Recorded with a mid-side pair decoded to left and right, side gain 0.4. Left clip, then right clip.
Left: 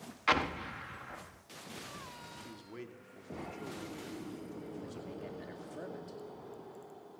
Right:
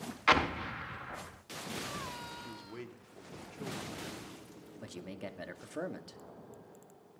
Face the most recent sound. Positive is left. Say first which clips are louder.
# even
turn(degrees=-65)